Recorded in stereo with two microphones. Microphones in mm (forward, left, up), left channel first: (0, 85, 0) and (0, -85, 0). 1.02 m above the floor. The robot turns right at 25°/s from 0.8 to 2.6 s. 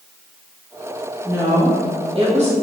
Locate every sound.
1.2 s a woman speaking: 165° right, 1.5 m; by 2.5 s 135° right, 1.5 m